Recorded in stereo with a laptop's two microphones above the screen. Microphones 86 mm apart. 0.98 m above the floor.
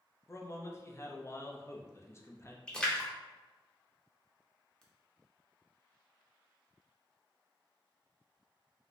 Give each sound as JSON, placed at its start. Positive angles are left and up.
{"t": 0.3, "sound": "a man speaking", "side_deg": 30, "distance_m": 0.6}
{"t": 2.7, "sound": "a splash", "side_deg": 10, "distance_m": 0.6}